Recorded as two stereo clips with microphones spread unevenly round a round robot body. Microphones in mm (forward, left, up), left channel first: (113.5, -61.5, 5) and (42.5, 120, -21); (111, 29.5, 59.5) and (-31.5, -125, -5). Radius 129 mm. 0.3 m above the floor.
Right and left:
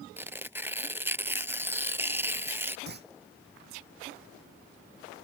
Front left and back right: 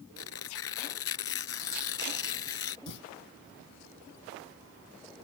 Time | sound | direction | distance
0.2 | tearing paper | 30° left | ?
2.9 | a clunk | 80° left | ?